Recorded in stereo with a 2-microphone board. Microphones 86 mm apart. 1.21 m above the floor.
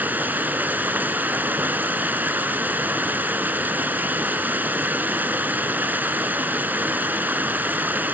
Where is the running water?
25° right (ahead or behind), 1.2 m.